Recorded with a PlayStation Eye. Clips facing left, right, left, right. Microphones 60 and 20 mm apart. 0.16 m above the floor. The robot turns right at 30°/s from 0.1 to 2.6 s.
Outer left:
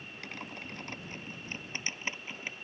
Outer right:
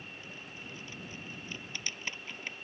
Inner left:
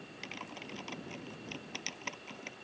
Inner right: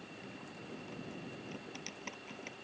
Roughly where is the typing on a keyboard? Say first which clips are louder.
Outer left 4 dB, inner left 9 dB; left.